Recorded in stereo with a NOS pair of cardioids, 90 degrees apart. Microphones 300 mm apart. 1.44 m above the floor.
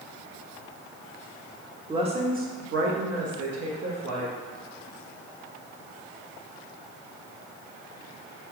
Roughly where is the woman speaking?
Ahead.